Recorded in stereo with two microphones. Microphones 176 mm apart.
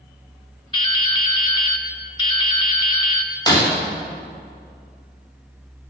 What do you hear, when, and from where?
0.7 s dripping: 30° left (ahead or behind), 0.7 m
3.5 s breaking glass: 20° left (ahead or behind), 3.5 m